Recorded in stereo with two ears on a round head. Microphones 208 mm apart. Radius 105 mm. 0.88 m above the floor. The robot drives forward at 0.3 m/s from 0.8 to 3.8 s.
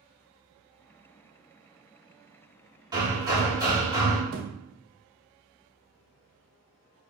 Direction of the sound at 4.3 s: 70° right (ahead or behind).